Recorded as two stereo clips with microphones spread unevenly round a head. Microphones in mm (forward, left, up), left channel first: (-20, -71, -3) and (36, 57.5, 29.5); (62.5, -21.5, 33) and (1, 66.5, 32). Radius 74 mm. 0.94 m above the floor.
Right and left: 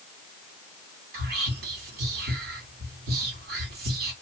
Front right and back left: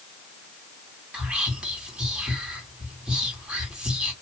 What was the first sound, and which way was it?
Whispering, 45° left.